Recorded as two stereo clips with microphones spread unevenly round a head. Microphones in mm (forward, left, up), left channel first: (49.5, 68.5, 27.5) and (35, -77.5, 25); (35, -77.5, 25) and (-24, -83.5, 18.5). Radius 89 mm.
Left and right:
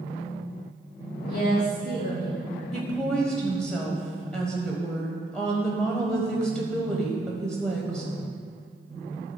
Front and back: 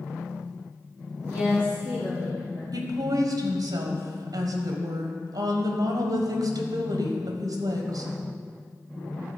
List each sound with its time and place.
1.2 s a woman speaking: 80° left, 1.7 m
2.7 s a woman speaking: 170° left, 1.2 m